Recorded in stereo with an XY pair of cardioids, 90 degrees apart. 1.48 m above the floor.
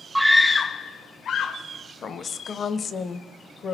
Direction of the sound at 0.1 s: 10° right.